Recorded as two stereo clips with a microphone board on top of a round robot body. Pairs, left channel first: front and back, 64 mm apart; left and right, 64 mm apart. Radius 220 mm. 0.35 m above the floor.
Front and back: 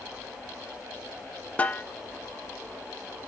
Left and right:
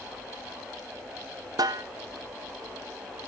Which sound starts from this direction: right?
A snare drum, at 1.6 s.